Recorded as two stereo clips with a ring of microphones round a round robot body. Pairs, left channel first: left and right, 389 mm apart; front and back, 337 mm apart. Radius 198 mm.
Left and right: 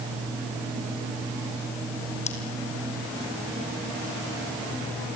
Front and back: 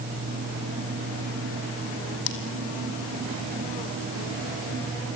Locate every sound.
2.3 s scissors: 15° left, 3.5 m